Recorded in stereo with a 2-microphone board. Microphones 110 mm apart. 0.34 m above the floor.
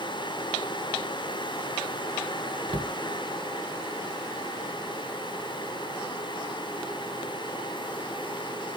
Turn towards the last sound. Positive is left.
turn(degrees=-50)  # may be behind; listen again after turning